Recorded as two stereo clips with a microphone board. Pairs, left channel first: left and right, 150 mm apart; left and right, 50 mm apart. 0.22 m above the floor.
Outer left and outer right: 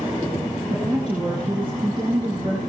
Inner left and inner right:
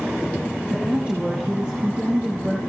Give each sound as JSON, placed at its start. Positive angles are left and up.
{"t": 0.7, "sound": "a woman speaking", "side_deg": -30, "distance_m": 3.5}